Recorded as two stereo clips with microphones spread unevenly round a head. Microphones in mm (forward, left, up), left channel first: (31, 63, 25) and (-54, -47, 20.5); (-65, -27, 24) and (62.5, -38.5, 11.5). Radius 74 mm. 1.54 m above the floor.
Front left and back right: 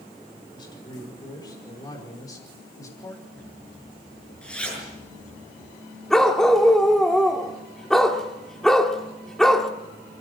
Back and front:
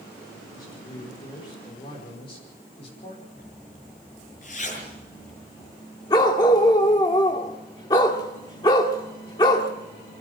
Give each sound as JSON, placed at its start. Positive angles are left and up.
{"t": 0.5, "sound": "a man speaking", "azimuth_deg": 110, "distance_m": 6.0}
{"t": 3.4, "sound": "a zipper", "azimuth_deg": 135, "distance_m": 6.5}
{"t": 6.1, "sound": "a dog barking", "azimuth_deg": 135, "distance_m": 1.3}